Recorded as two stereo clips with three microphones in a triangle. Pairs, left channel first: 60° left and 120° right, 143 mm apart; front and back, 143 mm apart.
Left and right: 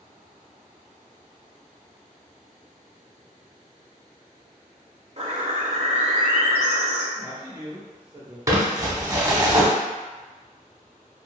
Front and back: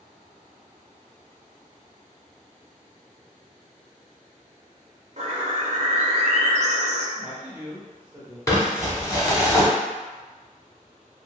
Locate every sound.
5.2 s a bird: 155° right, 0.5 m
7.2 s a man speaking: 120° right, 0.8 m
8.5 s crumpling: 60° right, 0.7 m